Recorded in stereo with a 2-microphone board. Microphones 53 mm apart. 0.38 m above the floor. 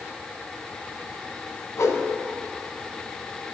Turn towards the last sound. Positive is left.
turn(degrees=65)  # may be behind; listen again after turning